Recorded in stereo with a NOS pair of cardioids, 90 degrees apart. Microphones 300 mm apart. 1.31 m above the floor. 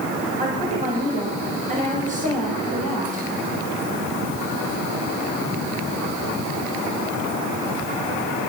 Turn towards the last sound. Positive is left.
turn(degrees=-25)